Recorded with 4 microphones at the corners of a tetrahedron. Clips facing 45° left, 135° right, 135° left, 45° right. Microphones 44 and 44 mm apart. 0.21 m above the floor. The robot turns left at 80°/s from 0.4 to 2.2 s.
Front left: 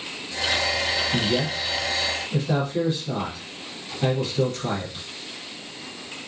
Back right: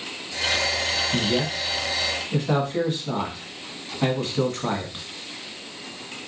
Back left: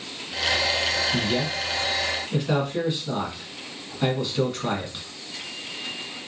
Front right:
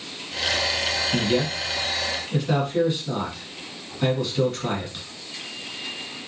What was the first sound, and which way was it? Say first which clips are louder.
A man speaking: even, front right 2 dB; 55° right.